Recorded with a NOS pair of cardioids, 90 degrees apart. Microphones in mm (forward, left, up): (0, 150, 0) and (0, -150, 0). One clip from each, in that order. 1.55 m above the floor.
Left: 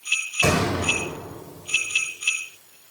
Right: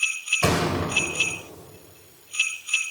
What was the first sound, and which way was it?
A thud, 5° right.